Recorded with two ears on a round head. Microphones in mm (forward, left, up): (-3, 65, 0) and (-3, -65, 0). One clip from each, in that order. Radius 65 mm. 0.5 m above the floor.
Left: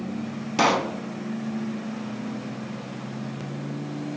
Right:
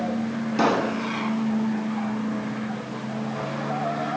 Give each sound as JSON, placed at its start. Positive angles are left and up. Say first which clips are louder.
{"t": 0.6, "sound": "a pop", "louder": "left 1 dB", "side_deg": 55, "distance_m": 1.2}